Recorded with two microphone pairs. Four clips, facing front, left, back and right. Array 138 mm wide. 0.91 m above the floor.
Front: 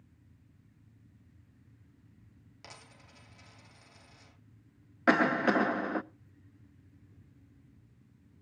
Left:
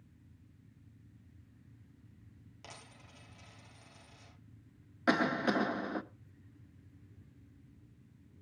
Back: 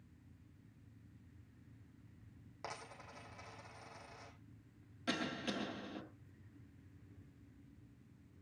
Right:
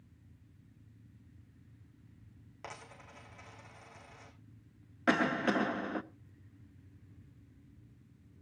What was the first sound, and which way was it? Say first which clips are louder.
A dropped coin: right 6 dB, back 6 dB; 140° right.